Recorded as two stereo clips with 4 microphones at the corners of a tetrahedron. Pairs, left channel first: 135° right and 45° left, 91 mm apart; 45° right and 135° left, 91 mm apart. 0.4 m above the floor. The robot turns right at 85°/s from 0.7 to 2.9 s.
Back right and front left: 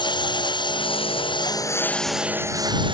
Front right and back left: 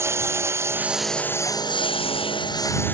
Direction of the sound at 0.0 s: 165° right.